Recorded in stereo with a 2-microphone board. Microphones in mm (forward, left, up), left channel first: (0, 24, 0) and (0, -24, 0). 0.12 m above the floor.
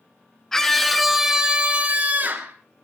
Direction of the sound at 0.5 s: 10° left (ahead or behind).